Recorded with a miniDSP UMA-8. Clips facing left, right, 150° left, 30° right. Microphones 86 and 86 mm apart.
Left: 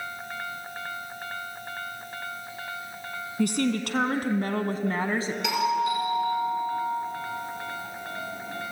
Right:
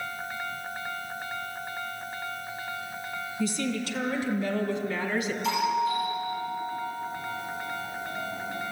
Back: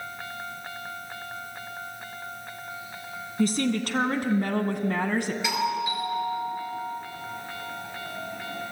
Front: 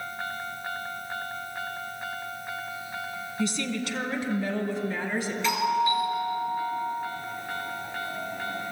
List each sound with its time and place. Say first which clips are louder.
3.4 s a woman speaking: left 5 dB, back 5 dB; 110° left, 3 m; by 5.3 s 145° left, 2 m
5.4 s a doorbell: left 2 dB, front 7 dB; 75° left, 5 m